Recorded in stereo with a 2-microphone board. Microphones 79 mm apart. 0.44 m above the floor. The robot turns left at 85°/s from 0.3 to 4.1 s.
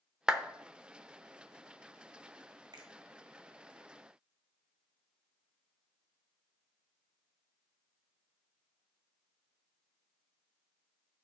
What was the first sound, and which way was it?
A clap, 10° right (ahead or behind).